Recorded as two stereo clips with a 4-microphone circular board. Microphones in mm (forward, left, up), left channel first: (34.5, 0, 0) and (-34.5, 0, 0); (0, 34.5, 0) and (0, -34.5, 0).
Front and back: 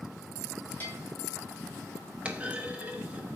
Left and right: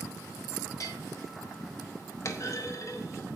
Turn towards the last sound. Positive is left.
turn(degrees=115)